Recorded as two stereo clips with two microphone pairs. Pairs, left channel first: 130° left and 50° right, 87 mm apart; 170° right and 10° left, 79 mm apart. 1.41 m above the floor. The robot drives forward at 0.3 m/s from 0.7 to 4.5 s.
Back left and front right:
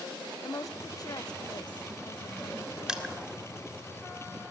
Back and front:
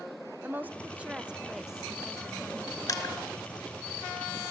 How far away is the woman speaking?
About 1.1 m.